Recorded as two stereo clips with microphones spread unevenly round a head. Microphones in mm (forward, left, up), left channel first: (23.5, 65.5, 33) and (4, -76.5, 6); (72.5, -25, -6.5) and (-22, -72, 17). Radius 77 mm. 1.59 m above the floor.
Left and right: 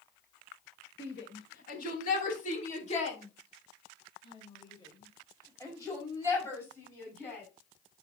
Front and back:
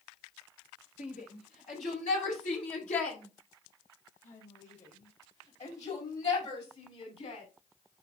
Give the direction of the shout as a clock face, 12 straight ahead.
10 o'clock.